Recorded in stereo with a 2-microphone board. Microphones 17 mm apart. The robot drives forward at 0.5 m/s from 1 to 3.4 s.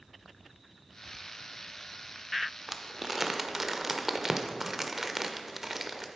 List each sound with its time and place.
2.7 s crumpling: 25° right (ahead or behind), 0.8 m; by 6.1 s 20° right (ahead or behind), 1.0 m